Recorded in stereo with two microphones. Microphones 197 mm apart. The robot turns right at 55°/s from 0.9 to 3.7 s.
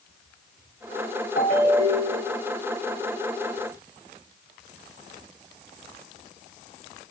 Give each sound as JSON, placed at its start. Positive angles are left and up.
{"t": 1.4, "sound": "a ringtone", "azimuth_deg": 125, "distance_m": 2.0}